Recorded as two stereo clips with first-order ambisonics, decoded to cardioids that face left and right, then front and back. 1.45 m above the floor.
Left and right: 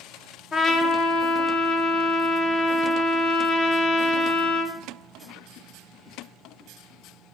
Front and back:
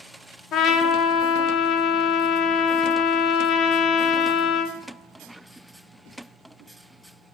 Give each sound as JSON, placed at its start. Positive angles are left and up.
{"t": 0.5, "sound": "a trumpet", "azimuth_deg": 45, "distance_m": 0.7}